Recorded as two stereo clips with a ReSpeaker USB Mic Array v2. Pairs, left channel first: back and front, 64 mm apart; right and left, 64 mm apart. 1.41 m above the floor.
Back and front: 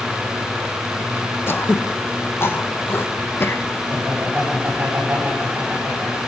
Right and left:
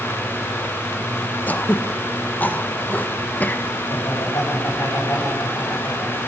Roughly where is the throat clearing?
Behind right.